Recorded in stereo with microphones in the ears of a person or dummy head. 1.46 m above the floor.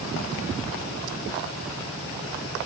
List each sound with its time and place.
Only background noise.